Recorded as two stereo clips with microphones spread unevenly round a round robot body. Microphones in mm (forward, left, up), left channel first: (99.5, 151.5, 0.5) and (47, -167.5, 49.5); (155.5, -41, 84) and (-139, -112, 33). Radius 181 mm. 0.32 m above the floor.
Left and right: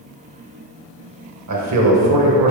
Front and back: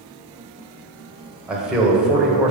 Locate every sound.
1.5 s a man speaking: 90° right, 1.5 m